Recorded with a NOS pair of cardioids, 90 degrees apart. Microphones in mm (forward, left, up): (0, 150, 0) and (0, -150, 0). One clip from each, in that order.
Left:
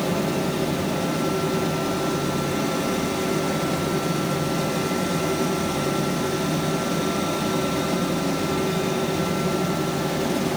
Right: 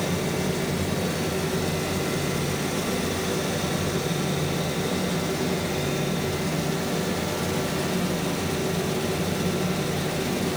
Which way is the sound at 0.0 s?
50° left.